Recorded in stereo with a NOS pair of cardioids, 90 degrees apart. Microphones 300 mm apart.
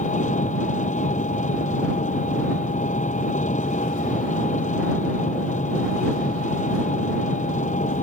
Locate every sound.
0.0 s an engine running: 25° left